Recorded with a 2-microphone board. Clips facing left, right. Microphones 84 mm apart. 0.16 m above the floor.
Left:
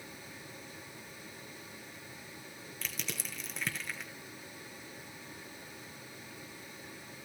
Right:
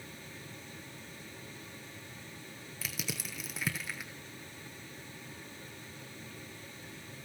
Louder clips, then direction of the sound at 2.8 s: Right 2 dB; 5° right (ahead or behind).